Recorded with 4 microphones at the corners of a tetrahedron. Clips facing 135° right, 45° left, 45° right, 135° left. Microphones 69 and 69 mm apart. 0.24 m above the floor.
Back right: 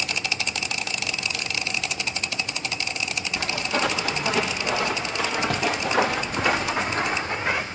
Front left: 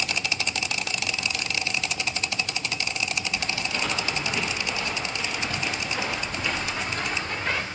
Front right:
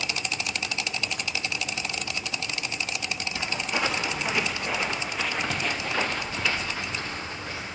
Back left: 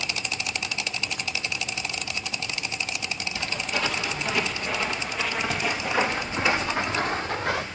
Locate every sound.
3.4 s footsteps: 115° right, 2 m; by 7.7 s 155° left, 1.0 m